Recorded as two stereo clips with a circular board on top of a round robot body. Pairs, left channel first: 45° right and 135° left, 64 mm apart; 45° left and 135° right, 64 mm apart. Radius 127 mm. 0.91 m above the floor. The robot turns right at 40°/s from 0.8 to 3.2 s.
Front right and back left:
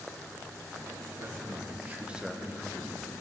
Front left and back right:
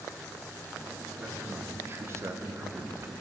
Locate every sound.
1.1 s a man speaking: 165° left, 1.1 m; by 3.1 s 115° right, 1.1 m